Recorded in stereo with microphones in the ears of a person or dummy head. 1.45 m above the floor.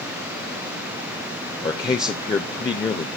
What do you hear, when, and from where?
1.6 s a man speaking: 30° left (ahead or behind), 0.7 m